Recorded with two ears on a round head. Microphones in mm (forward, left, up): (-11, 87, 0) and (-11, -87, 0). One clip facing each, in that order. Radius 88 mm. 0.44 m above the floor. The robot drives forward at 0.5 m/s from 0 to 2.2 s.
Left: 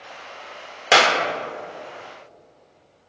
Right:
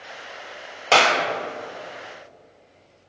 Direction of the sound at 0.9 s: 15° left (ahead or behind).